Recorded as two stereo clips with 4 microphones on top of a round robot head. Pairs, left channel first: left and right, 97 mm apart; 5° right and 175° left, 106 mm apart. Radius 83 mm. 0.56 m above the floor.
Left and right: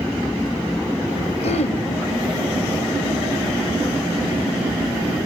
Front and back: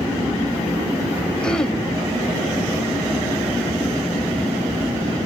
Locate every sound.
1.4 s throat clearing: 75° left, 1.2 m